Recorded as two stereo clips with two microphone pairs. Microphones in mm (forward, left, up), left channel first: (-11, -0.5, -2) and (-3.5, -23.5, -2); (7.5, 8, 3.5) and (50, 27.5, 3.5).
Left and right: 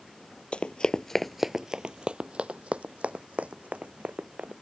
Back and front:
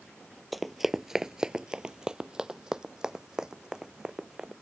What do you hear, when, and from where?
0.5 s running footsteps: 110° left; by 4.5 s 55° right